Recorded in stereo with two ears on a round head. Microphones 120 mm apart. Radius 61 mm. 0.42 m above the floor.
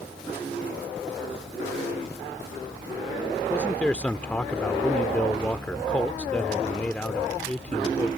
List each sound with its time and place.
3.5 s a man speaking: 10° left (ahead or behind)